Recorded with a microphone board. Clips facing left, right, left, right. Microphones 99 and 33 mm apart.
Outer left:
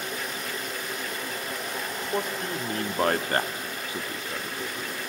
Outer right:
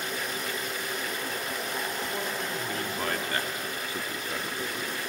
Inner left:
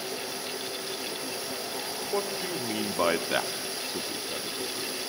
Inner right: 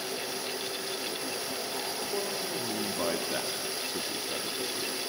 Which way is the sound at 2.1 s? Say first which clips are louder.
Outer left 3 dB, inner left 5 dB; 45° left (ahead or behind).